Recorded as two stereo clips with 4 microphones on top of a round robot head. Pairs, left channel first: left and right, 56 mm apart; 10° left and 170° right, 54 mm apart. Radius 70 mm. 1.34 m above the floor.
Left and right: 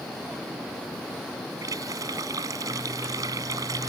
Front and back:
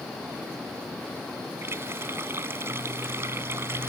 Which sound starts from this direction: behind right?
A running tap, at 1.6 s.